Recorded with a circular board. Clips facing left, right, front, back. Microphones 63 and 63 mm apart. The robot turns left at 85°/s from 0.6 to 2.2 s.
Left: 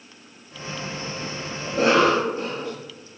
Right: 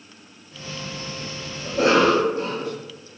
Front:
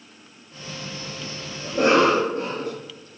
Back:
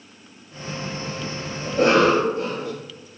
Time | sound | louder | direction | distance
1.6 | a cough | right 1 dB, back 1 dB | 50° left | 1.5 m